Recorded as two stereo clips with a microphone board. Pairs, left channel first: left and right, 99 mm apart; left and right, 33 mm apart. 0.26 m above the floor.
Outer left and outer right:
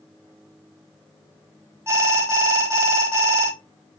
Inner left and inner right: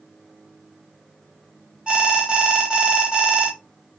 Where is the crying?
I don't hear crying.